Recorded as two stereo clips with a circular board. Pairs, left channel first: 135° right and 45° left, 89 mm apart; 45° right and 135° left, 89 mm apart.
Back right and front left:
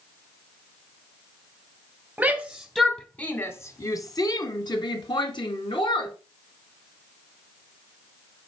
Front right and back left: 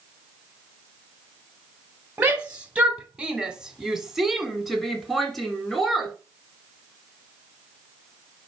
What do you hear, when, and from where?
2.2 s a shout: 90° left, 1.0 m; by 6.1 s 130° right, 2.5 m